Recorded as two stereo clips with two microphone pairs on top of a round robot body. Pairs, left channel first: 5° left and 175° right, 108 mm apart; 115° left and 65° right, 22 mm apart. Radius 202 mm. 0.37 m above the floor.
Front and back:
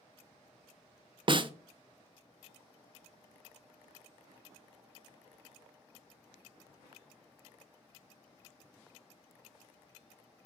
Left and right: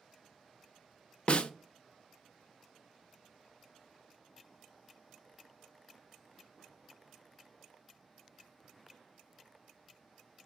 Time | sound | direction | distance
1.3 | a snare drum | 155° left | 0.5 m